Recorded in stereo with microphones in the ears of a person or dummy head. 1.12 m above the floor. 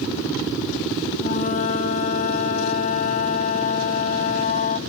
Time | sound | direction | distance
1.2 | a flute | 40° left (ahead or behind) | 1.4 m